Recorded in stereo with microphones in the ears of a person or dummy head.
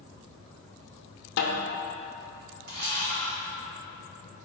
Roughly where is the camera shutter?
Right.